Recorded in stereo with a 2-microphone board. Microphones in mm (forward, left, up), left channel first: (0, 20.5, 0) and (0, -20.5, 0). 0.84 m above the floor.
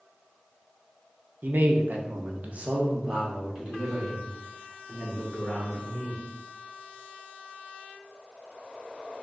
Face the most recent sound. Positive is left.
turn(degrees=-5)  # may be behind; listen again after turning